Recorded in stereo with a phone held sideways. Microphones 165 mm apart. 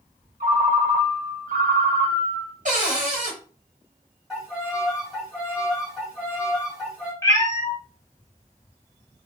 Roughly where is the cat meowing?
Centre.